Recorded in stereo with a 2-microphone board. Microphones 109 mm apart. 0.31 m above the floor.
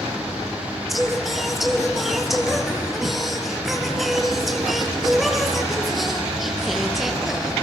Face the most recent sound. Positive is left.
turn(degrees=0)  # may be behind; listen again after turning